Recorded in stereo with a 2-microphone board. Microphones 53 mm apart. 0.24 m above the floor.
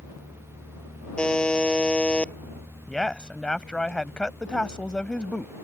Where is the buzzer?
20° left (ahead or behind).